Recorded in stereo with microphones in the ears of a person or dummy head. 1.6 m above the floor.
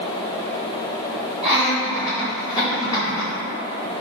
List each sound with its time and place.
1.4 s laughter: 5° right (ahead or behind), 1.4 m; by 3.3 s 35° left (ahead or behind), 2.5 m